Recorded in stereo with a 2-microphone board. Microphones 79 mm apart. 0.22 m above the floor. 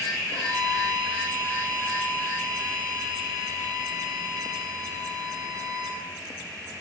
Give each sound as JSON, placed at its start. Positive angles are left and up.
{"t": 0.3, "sound": "a violin", "side_deg": -65, "distance_m": 4.5}